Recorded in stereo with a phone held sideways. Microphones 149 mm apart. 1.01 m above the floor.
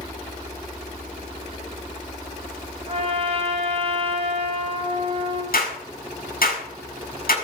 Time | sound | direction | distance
2.9 | a trumpet | 45° right (ahead or behind) | 3 m
5.5 | a clap | 90° left | 5.5 m